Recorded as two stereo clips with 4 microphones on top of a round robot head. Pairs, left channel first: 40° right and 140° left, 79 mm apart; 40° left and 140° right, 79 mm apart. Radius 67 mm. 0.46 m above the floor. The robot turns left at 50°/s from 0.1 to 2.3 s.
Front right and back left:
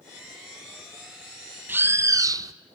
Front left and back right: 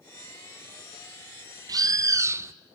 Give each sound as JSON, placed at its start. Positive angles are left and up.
{"t": 1.7, "sound": "a bird", "azimuth_deg": -155, "distance_m": 0.6}